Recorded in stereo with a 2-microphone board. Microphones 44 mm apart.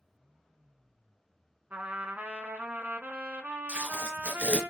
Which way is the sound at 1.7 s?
40° right (ahead or behind).